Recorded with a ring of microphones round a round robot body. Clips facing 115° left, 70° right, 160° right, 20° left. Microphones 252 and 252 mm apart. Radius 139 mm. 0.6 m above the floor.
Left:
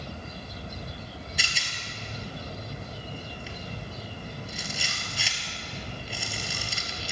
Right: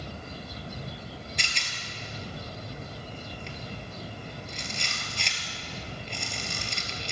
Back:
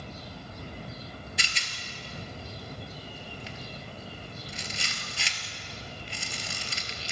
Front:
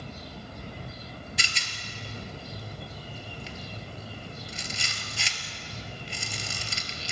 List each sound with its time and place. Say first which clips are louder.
1.4 s a rattle: left 1 dB, front 1 dB; 30° left, 2 m